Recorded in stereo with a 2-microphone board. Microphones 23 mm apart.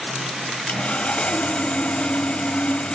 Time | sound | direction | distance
0.7 | sawing | 60° left (ahead or behind) | 0.7 m